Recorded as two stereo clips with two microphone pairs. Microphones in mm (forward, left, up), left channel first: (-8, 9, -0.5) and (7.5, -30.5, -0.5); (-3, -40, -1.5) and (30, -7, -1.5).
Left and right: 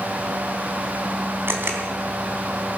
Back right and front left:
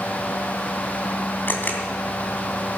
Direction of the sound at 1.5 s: 90° right.